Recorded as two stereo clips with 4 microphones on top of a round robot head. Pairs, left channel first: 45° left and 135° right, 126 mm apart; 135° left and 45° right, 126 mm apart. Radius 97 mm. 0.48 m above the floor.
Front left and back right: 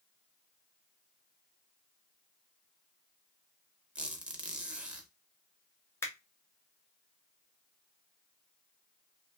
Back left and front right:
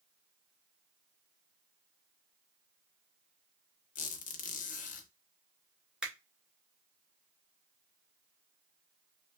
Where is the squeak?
145° left, 0.6 m.